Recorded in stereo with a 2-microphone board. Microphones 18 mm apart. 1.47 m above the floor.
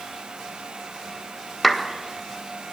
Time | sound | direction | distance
1.6 | a clap | centre (ahead or behind) | 1.5 m